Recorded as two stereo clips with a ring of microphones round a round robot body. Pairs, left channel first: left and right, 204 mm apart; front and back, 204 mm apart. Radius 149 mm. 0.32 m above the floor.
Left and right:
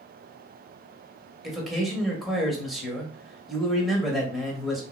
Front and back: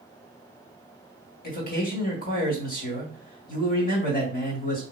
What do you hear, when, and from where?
1.4 s a man speaking: straight ahead, 1.9 m